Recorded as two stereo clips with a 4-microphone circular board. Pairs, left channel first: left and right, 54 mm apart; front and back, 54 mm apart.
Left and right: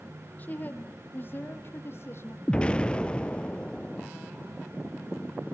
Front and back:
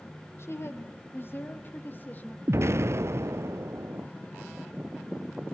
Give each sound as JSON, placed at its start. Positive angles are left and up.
{"t": 0.4, "sound": "a woman speaking", "azimuth_deg": 35, "distance_m": 3.0}
{"t": 2.5, "sound": "an explosion", "azimuth_deg": 155, "distance_m": 0.5}